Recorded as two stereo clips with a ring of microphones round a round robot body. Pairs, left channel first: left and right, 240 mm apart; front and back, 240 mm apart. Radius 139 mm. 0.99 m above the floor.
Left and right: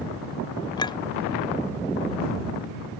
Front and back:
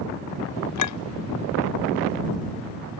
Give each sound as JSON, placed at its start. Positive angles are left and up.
{"t": 0.8, "sound": "a clink", "azimuth_deg": 15}